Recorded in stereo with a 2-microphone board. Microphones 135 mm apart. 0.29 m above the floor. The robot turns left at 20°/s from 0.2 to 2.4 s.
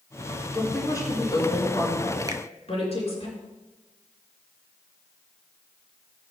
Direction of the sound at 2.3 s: 30° right (ahead or behind).